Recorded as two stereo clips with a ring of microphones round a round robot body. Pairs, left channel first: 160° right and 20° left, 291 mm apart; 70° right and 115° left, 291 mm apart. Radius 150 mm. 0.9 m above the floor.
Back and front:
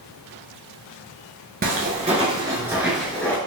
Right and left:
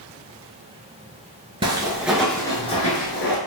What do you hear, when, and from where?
1.6 s footsteps: 55° left, 0.9 m; by 3.4 s 80° right, 1.0 m